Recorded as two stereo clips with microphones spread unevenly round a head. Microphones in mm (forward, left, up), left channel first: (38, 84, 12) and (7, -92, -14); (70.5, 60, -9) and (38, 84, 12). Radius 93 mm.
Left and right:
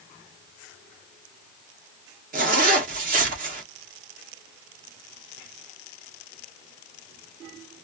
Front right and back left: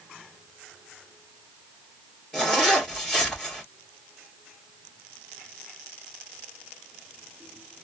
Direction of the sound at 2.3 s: 145° right.